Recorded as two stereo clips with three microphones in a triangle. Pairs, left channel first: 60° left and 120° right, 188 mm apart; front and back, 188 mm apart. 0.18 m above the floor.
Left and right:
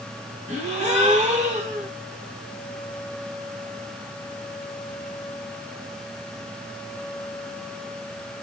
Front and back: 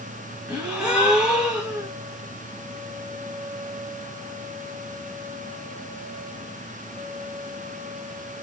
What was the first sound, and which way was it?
A gasp, 100° right.